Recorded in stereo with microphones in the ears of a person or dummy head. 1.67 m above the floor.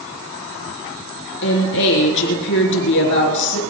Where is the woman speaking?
70° left (ahead or behind), 3.5 m.